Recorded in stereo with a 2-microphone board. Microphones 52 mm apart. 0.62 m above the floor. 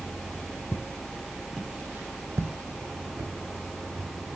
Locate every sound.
0.7 s footsteps: 55° left (ahead or behind), 1.2 m; by 4.1 s 75° right (ahead or behind), 3.5 m